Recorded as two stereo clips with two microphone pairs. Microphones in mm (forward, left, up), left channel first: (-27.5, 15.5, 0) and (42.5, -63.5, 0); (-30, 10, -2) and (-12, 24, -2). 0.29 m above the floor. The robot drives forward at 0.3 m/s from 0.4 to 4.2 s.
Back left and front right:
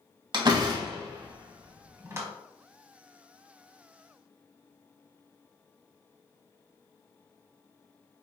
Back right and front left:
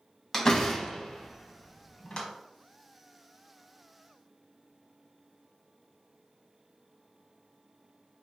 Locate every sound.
0.3 s a door slam: 75° right, 1.2 m; by 2.3 s 105° right, 1.2 m